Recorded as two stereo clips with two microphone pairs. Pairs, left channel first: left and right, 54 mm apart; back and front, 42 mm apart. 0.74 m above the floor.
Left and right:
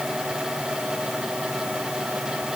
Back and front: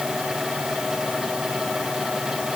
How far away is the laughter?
I don't hear laughter.